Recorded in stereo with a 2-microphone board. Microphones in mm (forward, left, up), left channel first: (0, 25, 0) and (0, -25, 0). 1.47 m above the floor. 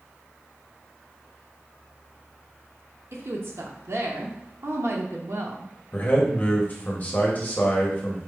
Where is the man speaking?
35° left (ahead or behind), 0.9 m.